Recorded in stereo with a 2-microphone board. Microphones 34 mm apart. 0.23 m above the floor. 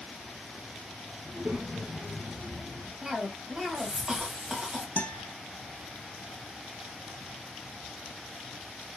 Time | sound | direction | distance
1.2 | a child speaking | 60° right (ahead or behind) | 2.5 m
3.0 | a cough | 20° right (ahead or behind) | 1.5 m
5.0 | a guitar | 55° left (ahead or behind) | 0.9 m